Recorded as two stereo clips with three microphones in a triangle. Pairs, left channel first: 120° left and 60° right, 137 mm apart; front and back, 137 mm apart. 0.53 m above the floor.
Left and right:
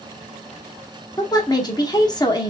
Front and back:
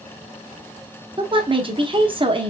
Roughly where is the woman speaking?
Behind.